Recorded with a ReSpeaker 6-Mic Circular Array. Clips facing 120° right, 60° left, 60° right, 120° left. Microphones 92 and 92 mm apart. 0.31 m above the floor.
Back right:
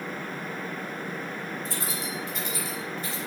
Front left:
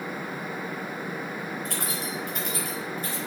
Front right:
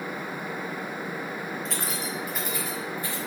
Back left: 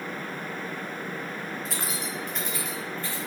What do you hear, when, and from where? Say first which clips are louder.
1.6 s keys jangling: front left 1 dB, front right 1 dB; 35° left, 2.5 m; by 3.2 s 15° left, 3 m